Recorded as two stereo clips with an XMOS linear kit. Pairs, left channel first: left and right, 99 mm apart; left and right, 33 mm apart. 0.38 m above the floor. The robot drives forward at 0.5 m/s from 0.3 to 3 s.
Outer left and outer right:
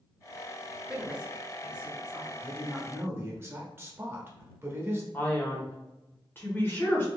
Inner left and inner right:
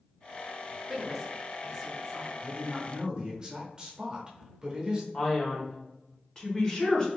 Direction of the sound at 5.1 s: 25° left (ahead or behind).